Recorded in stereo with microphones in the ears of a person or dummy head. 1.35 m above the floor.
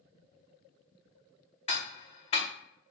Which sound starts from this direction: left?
Ticking, at 1.7 s.